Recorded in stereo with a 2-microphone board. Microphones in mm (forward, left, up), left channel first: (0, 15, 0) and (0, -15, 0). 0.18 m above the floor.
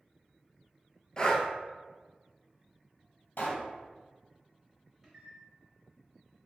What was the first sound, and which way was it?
Breathing, 30° left (ahead or behind).